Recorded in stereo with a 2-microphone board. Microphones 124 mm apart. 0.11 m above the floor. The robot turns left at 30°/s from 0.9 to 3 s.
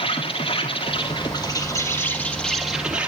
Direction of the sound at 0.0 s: 50° left.